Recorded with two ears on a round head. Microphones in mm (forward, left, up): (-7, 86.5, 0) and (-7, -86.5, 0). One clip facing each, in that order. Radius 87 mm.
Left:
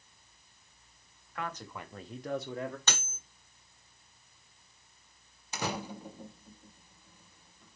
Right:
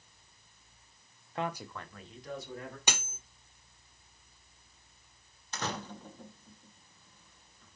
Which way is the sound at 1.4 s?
25° right (ahead or behind).